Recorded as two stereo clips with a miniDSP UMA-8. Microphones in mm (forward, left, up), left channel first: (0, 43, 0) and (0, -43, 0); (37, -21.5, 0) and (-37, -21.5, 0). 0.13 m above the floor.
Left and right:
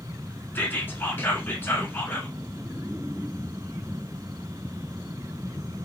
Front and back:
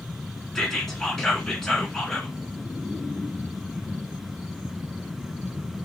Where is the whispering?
75° left, 1.4 m.